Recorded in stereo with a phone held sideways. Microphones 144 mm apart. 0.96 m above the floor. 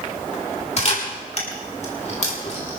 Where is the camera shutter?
50° left (ahead or behind), 3.5 m.